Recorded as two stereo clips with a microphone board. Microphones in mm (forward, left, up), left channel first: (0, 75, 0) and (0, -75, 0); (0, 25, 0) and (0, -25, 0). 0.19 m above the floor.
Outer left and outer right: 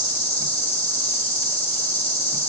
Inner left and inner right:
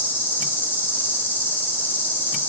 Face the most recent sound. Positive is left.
turn(degrees=40)  # may be behind; listen again after turning